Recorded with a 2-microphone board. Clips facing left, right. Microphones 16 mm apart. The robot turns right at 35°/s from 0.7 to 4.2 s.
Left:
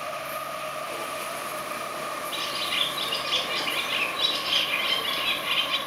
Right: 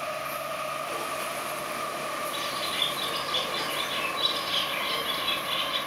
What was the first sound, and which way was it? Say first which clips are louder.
A bird: left 6 dB; 35° left.